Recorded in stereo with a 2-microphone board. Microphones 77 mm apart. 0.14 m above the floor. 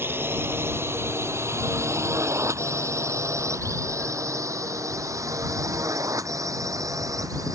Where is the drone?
30° right (ahead or behind); by 7.5 s 50° right (ahead or behind).